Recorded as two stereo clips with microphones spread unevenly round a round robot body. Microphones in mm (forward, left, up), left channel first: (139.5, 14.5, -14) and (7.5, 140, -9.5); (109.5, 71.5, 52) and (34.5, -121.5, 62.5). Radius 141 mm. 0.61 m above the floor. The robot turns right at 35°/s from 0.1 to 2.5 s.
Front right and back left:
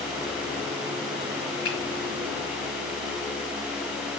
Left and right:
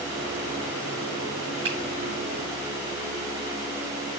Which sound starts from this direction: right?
A finger snap, at 1.6 s.